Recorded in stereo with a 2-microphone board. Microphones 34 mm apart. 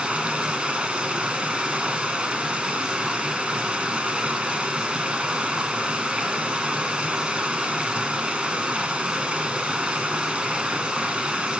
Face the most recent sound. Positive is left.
turn(degrees=-35)  # may be behind; listen again after turning